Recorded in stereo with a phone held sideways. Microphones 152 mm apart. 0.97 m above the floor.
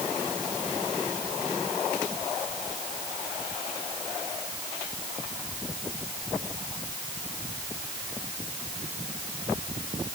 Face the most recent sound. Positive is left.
No sound to turn to.